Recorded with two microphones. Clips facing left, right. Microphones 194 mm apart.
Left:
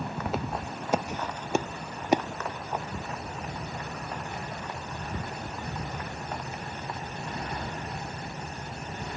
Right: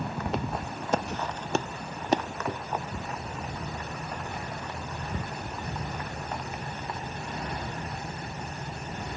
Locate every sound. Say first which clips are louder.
0.3 s footsteps: even; centre (ahead or behind); by 2.2 s 10° left (ahead or behind)
2.5 s a gunshot: right 5 dB; 60° right (ahead or behind)